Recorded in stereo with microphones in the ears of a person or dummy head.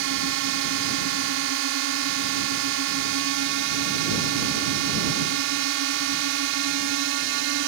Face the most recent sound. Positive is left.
turn(degrees=-65)  # may be behind; listen again after turning